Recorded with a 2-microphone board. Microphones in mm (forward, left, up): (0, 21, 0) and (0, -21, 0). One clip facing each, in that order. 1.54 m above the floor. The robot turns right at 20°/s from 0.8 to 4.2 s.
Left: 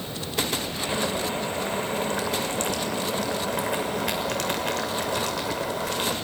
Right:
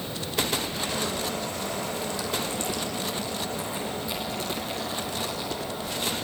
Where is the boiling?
25° left, 6.5 m; by 6.1 s 95° left, 6.5 m.